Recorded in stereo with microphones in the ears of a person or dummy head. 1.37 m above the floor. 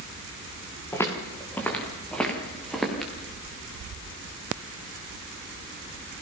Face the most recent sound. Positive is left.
turn(degrees=0)  # may be behind; listen again after turning